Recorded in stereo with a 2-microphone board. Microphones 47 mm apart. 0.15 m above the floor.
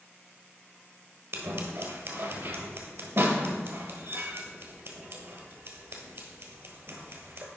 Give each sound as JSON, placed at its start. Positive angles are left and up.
{"t": 1.3, "sound": "scissors", "side_deg": -65, "distance_m": 1.2}